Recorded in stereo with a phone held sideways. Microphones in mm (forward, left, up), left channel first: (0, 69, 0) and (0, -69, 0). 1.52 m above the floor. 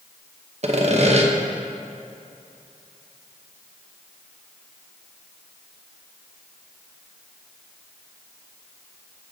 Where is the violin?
I don't hear a violin.